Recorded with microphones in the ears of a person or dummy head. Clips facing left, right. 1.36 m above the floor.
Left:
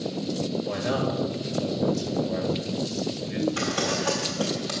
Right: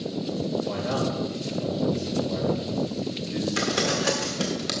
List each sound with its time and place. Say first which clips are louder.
0.7 s a man speaking: even; 20° left (ahead or behind), 3 m
3.6 s crumpling: right 1 dB; 30° right (ahead or behind), 1.6 m